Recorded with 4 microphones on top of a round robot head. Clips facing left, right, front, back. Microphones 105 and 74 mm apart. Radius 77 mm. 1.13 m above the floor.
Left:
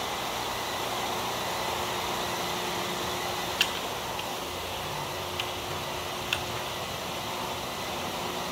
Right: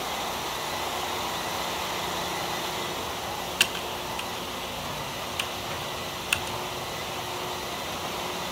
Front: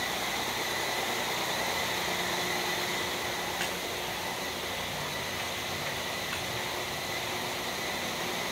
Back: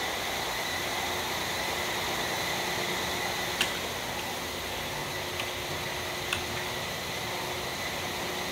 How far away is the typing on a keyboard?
About 0.9 m.